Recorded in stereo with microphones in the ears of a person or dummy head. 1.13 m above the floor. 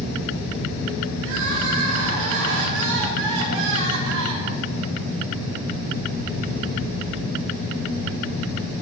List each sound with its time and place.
1.2 s crying: 65° right (ahead or behind), 2.5 m